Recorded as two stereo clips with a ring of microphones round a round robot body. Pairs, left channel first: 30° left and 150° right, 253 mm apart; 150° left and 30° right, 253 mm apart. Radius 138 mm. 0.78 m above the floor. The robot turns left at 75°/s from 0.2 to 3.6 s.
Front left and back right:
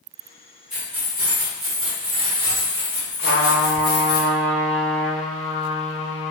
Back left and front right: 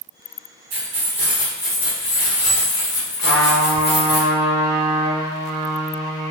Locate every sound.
0.7 s keys jangling: 60° right, 1.3 m; by 4.2 s 80° left, 1.3 m
3.2 s a trumpet: 5° right, 0.7 m; by 6.3 s 35° right, 0.7 m